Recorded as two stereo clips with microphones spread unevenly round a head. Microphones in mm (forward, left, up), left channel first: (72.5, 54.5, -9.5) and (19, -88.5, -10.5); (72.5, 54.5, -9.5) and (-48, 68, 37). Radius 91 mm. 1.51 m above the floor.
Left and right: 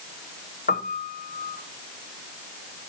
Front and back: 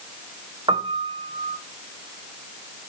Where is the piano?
115° left, 1.2 m.